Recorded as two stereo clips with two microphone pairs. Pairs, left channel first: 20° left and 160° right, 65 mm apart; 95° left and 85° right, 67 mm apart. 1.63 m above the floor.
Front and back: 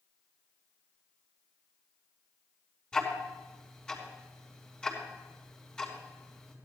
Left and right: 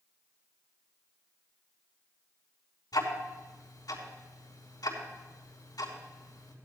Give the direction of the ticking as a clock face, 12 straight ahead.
9 o'clock.